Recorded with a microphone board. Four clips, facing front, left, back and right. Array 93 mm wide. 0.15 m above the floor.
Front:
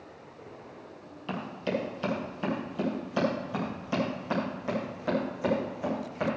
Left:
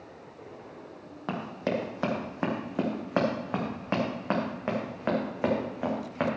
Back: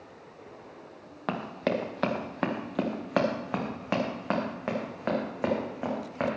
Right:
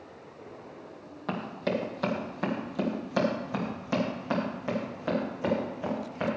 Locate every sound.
1.3 s running footsteps: 165° left, 3 m; by 6.3 s 125° left, 5 m